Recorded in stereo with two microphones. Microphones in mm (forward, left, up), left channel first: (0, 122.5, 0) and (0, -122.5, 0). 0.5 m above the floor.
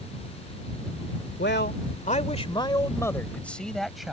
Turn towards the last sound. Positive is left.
turn(degrees=0)  # may be behind; listen again after turning